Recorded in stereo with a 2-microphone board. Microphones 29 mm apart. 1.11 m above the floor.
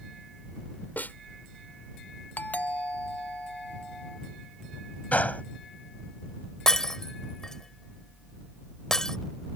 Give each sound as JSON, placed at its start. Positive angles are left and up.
{"t": 1.0, "sound": "a snare drum", "side_deg": 75}
{"t": 2.4, "sound": "a doorbell", "side_deg": 60}
{"t": 5.1, "sound": "a gunshot", "side_deg": 55}
{"t": 6.7, "sound": "breaking glass", "side_deg": 20}